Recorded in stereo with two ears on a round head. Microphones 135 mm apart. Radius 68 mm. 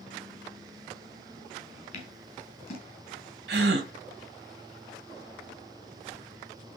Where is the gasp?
85° right, 1.3 m.